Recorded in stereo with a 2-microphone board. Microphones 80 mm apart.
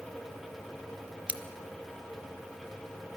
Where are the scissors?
15° right (ahead or behind), 0.8 m.